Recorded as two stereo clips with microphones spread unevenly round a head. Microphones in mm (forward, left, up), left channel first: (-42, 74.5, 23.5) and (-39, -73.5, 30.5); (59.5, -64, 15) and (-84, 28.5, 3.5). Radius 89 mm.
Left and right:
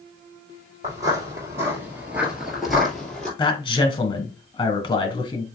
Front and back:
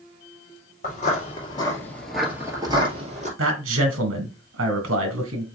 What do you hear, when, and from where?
0.8 s footsteps: 30° right, 2.5 m; by 3.3 s 175° left, 2.5 m
3.4 s a man speaking: 150° left, 1.7 m